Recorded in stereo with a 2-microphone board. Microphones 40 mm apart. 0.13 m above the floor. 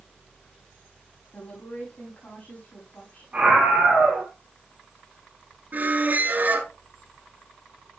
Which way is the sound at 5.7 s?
45° right (ahead or behind).